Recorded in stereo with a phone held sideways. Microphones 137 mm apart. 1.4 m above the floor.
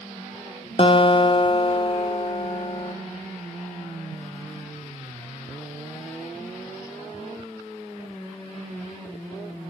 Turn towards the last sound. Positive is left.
turn(degrees=40)  # may be behind; listen again after turning